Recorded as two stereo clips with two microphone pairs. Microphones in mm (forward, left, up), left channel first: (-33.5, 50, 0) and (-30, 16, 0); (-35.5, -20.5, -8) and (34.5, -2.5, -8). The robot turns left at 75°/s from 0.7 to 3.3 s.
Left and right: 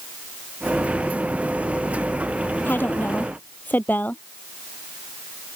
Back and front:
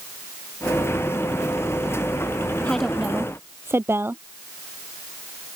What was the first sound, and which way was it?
A woman speaking, 120° left.